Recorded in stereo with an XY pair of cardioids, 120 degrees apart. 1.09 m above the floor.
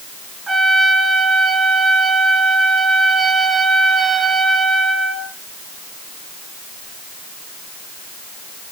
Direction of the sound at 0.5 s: 25° right.